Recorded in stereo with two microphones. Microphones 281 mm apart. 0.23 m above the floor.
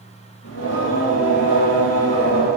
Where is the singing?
60° left (ahead or behind), 7 m.